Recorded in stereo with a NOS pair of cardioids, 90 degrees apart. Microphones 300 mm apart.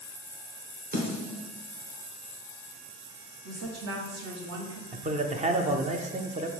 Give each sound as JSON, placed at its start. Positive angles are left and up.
{"t": 0.9, "sound": "a snare drum", "azimuth_deg": -30, "distance_m": 1.4}
{"t": 3.5, "sound": "a woman speaking", "azimuth_deg": -60, "distance_m": 1.2}
{"t": 4.9, "sound": "a man speaking", "azimuth_deg": -25, "distance_m": 0.5}